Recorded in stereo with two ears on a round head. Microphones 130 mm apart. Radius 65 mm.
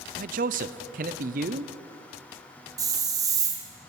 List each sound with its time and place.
0.1 s a man speaking: 60° right (ahead or behind), 0.5 m
2.8 s a hiss: 25° right (ahead or behind), 1.5 m